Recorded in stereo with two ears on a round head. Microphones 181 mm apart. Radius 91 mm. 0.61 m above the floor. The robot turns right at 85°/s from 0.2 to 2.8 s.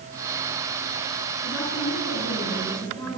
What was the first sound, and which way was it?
A woman speaking, 45° left.